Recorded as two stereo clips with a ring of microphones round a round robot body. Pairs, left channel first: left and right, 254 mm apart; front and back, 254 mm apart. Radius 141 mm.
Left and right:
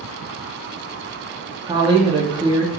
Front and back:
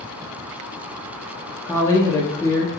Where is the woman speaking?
60° right, 0.6 m.